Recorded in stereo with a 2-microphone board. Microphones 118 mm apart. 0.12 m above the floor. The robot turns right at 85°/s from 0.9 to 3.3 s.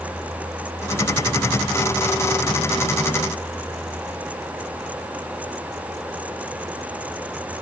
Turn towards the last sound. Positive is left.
No sound to turn to.